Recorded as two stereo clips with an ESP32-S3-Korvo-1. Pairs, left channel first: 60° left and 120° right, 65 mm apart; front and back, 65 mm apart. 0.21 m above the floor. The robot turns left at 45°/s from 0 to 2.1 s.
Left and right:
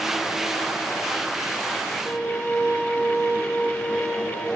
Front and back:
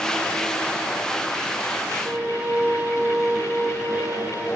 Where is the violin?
140° left, 5.5 m.